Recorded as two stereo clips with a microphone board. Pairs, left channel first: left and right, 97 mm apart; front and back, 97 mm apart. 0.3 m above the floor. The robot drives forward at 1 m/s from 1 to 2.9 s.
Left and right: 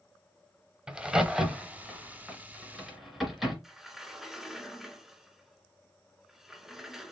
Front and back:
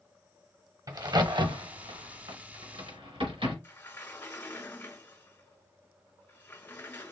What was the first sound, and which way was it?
A crack, 165° right.